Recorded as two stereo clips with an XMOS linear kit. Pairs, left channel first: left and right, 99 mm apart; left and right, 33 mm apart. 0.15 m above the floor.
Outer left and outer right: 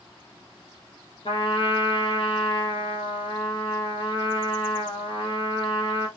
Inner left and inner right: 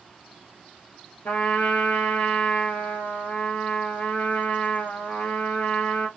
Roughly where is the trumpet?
Left.